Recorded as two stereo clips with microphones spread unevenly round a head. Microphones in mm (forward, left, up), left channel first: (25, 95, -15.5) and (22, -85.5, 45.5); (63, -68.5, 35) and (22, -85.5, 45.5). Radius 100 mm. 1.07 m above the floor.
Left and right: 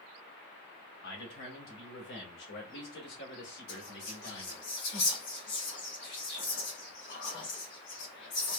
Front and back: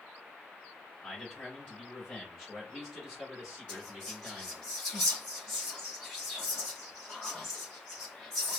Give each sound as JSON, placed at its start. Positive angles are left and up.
{"t": 1.0, "sound": "a man speaking", "azimuth_deg": 90, "distance_m": 2.5}
{"t": 3.7, "sound": "whispering", "azimuth_deg": 100, "distance_m": 2.5}